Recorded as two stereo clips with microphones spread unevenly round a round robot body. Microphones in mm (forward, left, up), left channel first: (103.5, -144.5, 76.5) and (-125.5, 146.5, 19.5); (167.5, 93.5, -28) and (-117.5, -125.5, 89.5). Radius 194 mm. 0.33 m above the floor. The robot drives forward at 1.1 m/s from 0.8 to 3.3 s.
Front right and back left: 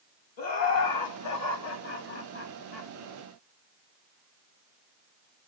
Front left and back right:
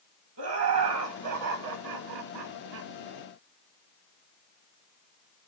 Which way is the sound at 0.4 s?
85° right.